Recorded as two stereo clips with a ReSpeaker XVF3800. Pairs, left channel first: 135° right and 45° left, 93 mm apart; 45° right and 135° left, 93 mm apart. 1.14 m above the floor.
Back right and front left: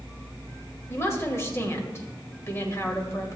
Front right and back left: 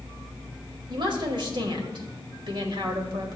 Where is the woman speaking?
165° left, 1.9 m.